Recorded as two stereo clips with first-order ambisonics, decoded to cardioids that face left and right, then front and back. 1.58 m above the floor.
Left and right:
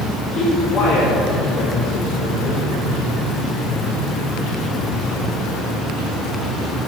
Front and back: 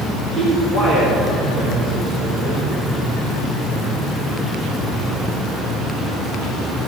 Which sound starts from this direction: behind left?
A man speaking, at 0.3 s.